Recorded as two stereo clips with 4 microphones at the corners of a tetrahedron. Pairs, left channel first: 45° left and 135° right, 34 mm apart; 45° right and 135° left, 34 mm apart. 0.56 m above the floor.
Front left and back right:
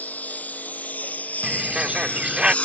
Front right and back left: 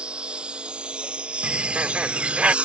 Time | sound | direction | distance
0.0 | a lawn mower | 80° left | ?
1.4 | a bird | 175° left | ?